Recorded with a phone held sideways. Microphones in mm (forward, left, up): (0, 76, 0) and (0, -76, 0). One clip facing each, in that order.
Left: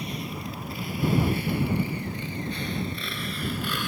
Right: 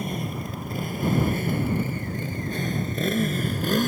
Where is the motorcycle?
50° right (ahead or behind); by 3.9 s 45° right (ahead or behind).